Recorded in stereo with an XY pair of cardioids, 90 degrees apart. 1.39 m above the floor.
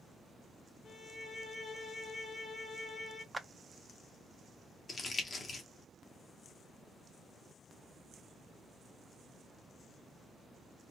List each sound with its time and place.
0.8 s a violin: 50° left, 2 m
3.3 s a clap: 15° right, 0.5 m
4.9 s crumpling: 45° left, 1.2 m